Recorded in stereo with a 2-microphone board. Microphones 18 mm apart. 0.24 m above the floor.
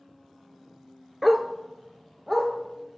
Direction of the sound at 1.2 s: 5° right (ahead or behind).